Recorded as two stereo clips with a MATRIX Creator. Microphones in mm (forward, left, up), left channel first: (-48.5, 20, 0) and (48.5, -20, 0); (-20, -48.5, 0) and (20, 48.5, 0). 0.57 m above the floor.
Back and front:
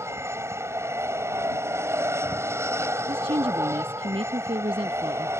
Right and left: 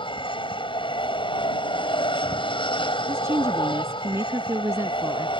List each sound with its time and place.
0.0 s an aircraft: 85° right
3.1 s a woman speaking: 5° left